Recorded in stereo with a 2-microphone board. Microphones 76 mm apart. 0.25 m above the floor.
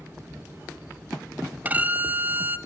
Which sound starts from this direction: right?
A violin, at 1.6 s.